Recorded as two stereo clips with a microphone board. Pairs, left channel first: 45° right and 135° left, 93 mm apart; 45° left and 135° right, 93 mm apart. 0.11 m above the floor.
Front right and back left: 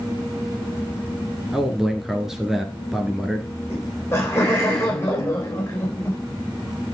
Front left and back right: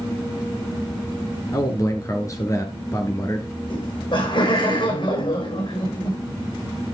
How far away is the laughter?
About 5.5 m.